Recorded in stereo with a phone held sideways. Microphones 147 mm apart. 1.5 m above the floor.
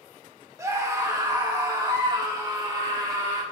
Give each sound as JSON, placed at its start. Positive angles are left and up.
{"t": 0.6, "sound": "a scream", "side_deg": -20, "distance_m": 1.0}